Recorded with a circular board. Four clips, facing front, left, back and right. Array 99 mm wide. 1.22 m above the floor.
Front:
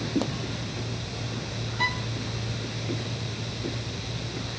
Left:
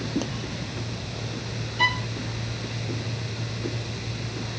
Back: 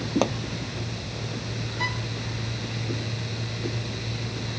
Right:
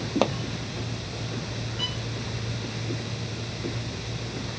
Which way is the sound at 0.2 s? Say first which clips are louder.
Right 9 dB, back 6 dB; 125° right.